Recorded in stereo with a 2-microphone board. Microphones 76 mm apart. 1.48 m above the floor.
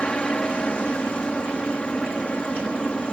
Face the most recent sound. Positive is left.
turn(degrees=15)  # may be behind; listen again after turning